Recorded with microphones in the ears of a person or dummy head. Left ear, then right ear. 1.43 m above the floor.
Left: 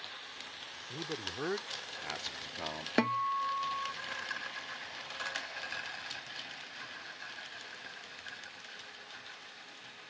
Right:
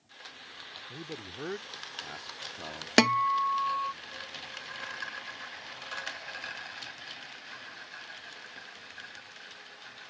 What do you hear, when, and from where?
0.9 s a man speaking: 25° left (ahead or behind); by 2.9 s 20° left (ahead or behind)
3.0 s a guitar: 65° right (ahead or behind)